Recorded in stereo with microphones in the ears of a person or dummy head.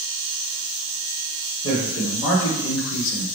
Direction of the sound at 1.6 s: 40° left (ahead or behind).